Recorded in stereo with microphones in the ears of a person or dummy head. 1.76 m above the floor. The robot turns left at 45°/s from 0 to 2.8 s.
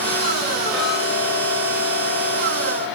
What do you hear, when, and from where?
0.7 s ticking: 30° left, 6.5 m; by 2.9 s 65° right, 6.5 m